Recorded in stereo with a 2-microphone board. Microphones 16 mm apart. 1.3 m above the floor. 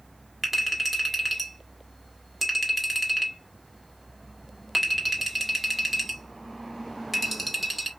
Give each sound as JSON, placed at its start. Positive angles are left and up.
{"t": 0.4, "sound": "a clink", "side_deg": -10, "distance_m": 1.8}